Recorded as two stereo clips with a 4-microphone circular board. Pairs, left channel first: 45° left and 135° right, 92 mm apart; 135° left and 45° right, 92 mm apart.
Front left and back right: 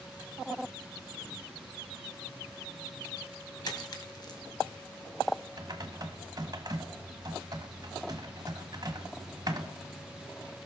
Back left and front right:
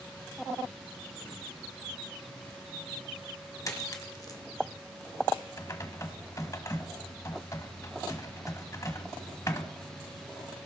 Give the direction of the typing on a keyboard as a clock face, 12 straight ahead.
6 o'clock.